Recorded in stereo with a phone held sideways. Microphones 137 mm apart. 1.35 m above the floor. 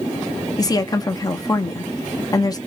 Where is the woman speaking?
25° left (ahead or behind), 0.8 m.